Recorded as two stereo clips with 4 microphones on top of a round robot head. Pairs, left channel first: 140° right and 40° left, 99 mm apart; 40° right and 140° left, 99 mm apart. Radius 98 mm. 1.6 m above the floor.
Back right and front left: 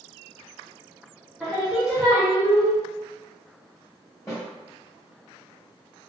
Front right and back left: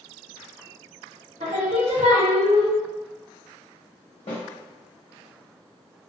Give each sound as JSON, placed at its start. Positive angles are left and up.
{"t": 1.4, "sound": "singing", "azimuth_deg": 130, "distance_m": 0.6}
{"t": 4.3, "sound": "a snare drum", "azimuth_deg": -70, "distance_m": 1.1}